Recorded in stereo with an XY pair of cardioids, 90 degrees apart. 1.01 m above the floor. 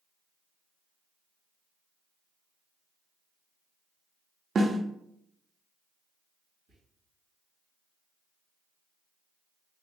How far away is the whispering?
About 1.3 m.